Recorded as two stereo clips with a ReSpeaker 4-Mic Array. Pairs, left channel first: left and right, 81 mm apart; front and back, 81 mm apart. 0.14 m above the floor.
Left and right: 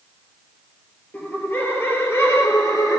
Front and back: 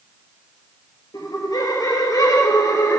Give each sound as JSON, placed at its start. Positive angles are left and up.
{"t": 1.1, "sound": "laughter", "azimuth_deg": 20, "distance_m": 3.0}